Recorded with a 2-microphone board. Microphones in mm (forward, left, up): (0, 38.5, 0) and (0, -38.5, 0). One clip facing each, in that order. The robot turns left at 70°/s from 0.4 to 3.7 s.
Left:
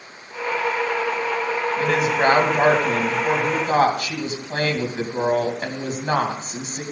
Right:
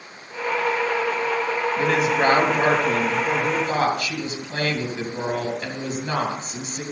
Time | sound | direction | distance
1.8 | a woman speaking | 170° right | 2.5 m